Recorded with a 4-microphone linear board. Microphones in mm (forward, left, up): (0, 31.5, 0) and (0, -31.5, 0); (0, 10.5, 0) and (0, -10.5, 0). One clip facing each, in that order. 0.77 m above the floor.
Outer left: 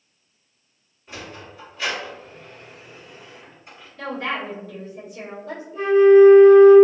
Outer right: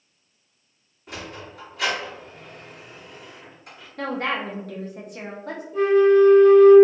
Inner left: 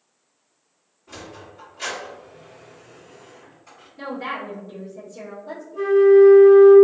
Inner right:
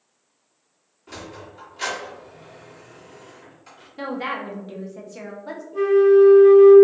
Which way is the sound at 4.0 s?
60° right (ahead or behind).